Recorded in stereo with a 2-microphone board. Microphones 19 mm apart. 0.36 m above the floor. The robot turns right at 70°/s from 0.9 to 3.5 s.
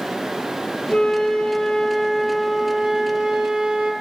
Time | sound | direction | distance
0.9 | a flute | 80° left | 3 m